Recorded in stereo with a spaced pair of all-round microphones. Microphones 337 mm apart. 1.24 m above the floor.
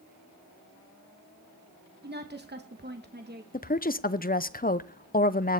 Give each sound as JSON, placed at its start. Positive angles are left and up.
{"t": 2.0, "sound": "a woman speaking", "side_deg": -30, "distance_m": 1.0}
{"t": 3.5, "sound": "a woman speaking", "side_deg": 25, "distance_m": 0.6}